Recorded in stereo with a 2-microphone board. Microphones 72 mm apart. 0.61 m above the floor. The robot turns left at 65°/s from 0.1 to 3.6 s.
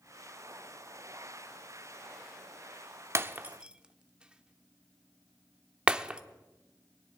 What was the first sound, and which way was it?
Breaking glass, 40° right (ahead or behind).